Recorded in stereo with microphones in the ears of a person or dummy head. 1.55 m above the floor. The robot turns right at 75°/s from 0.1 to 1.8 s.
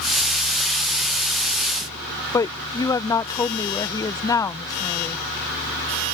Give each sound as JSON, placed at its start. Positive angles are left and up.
{"t": 2.3, "sound": "a woman speaking", "side_deg": 20}